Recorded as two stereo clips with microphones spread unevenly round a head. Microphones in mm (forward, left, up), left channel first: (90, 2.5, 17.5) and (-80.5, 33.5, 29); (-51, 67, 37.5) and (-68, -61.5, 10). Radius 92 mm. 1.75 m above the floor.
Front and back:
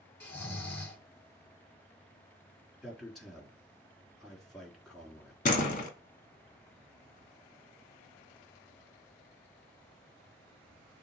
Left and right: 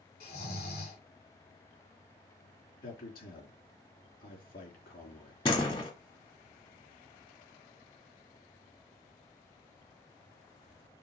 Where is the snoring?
70° left, 4.5 m.